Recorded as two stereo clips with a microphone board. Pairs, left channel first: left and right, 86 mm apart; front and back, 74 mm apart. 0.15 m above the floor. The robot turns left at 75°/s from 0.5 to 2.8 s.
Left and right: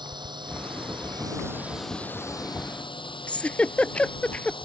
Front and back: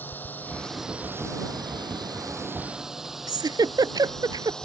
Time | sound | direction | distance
0.0 | a drone | 65° right | ?
3.3 | a giggle | 165° left | ?